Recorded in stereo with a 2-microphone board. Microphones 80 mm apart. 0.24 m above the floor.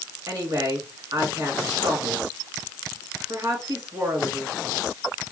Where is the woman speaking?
45° right (ahead or behind), 2.5 m.